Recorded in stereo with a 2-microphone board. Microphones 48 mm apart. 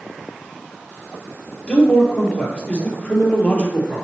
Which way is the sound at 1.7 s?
25° left (ahead or behind).